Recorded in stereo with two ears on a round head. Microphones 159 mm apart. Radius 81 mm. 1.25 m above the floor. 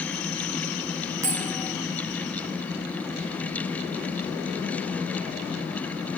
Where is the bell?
15° right (ahead or behind), 1.3 m.